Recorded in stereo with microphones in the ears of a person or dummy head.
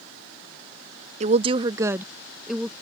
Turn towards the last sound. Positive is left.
turn(degrees=0)  # may be behind; listen again after turning